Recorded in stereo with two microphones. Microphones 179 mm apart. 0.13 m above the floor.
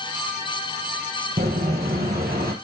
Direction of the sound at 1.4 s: 70° right (ahead or behind).